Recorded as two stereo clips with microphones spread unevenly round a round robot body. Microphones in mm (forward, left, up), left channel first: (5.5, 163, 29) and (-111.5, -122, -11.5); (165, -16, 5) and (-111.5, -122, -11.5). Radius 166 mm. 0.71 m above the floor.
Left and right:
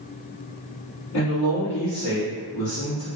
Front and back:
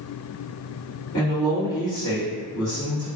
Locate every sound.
1.1 s a man speaking: 95° left, 1.9 m